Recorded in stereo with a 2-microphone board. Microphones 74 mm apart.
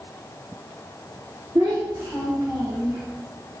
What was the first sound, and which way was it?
A child speaking, 70° right (ahead or behind).